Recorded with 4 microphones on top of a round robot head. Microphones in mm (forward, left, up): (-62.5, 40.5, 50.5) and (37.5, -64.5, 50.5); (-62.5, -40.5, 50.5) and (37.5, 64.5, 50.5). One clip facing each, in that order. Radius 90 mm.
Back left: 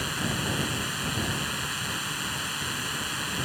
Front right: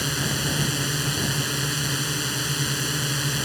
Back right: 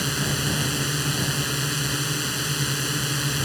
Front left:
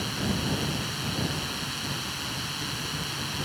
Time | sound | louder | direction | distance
0.0 | a drone | front right 3 dB, back right 2 dB | 95° right | ?